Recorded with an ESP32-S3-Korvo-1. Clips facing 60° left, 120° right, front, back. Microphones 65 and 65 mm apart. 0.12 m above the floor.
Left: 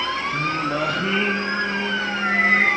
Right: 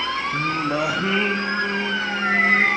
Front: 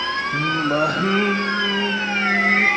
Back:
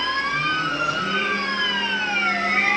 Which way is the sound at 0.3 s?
40° right.